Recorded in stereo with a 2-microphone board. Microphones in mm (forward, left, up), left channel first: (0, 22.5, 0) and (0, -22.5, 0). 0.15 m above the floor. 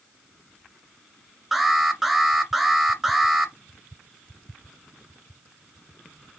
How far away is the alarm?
About 1.8 m.